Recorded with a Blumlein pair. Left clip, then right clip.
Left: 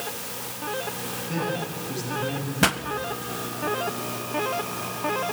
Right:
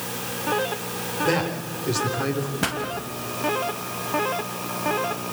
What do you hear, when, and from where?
1.2 s a man speaking: 45° right, 5.5 m
2.6 s a pop: 20° left, 1.4 m